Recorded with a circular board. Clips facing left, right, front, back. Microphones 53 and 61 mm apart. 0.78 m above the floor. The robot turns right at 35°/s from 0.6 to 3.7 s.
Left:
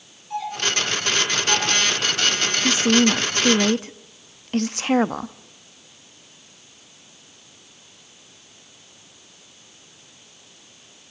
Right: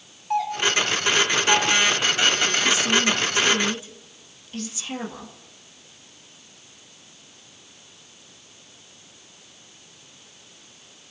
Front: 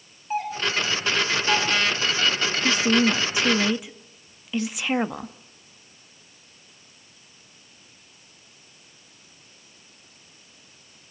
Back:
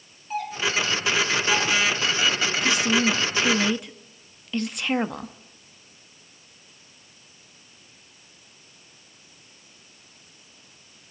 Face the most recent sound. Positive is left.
turn(degrees=85)